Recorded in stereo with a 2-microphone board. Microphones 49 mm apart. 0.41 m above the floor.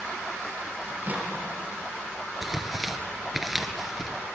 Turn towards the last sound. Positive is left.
turn(degrees=-5)  # may be behind; listen again after turning